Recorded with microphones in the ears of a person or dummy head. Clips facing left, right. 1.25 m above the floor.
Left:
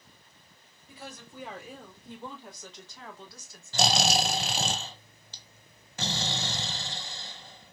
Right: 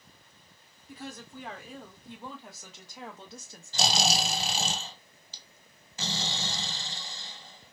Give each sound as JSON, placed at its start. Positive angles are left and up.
{"t": 0.9, "sound": "a woman speaking", "side_deg": 10, "distance_m": 2.0}
{"t": 3.7, "sound": "snoring", "side_deg": 50, "distance_m": 0.8}